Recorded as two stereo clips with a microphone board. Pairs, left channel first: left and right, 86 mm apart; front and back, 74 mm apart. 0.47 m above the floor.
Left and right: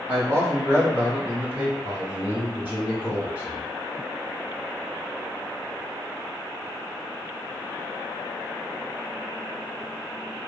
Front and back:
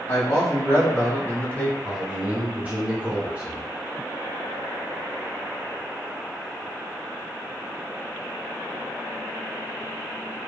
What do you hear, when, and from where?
0.1 s a man speaking: 35° right, 1.7 m
1.8 s a man speaking: 130° right, 1.2 m